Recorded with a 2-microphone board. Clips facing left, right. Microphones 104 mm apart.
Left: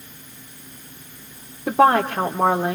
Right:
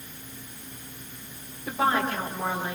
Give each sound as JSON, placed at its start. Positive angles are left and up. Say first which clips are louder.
{"t": 1.7, "sound": "a woman speaking", "louder": "left 9 dB", "side_deg": 65, "distance_m": 2.0}